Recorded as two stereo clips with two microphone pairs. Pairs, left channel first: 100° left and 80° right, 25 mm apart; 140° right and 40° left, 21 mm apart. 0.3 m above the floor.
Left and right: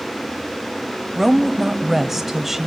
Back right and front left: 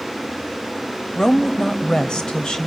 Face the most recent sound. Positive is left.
turn(degrees=-140)